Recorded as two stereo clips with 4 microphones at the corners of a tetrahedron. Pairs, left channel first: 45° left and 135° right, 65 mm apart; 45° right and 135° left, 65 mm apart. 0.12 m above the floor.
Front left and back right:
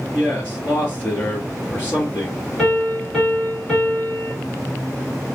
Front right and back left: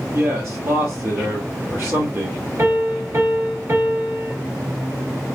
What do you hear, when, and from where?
0.1 s a man speaking: 100° left, 3 m
2.6 s a piano: 120° left, 1.9 m